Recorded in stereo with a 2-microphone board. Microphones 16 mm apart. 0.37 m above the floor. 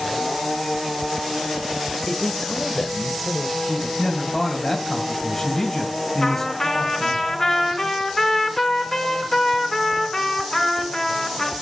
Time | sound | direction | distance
2.1 | a man speaking | 30° left (ahead or behind) | 1.6 m
4.0 | a man speaking | 10° left (ahead or behind) | 2.5 m
6.2 | a trumpet | 20° left (ahead or behind) | 3.5 m